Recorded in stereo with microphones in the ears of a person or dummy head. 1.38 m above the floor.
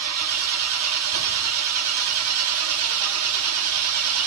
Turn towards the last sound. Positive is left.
turn(degrees=-80)